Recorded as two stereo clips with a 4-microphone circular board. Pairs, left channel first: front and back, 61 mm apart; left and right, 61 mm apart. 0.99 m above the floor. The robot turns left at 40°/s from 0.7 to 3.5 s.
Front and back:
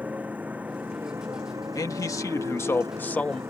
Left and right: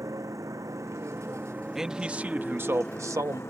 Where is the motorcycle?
115° right; by 3.5 s 135° left.